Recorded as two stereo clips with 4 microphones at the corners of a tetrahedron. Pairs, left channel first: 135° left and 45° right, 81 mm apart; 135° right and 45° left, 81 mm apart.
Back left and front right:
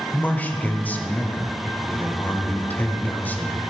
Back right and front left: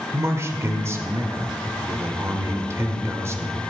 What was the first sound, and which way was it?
A man speaking, 80° left.